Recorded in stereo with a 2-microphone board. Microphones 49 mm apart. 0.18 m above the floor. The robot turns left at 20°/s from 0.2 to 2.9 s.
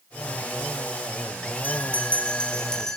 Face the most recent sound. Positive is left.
turn(degrees=10)  # may be behind; listen again after turning